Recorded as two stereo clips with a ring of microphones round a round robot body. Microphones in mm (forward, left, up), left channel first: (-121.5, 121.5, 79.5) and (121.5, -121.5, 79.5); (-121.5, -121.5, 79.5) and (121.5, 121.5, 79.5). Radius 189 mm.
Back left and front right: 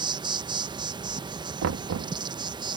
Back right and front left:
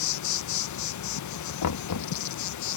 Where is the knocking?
95° right.